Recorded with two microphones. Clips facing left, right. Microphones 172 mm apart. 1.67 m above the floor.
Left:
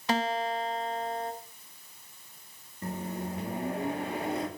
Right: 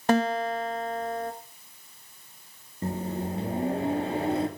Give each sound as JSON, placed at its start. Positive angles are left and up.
{"t": 0.1, "sound": "a guitar", "side_deg": -50, "distance_m": 1.3}
{"t": 2.8, "sound": "a microwave", "side_deg": -30, "distance_m": 2.5}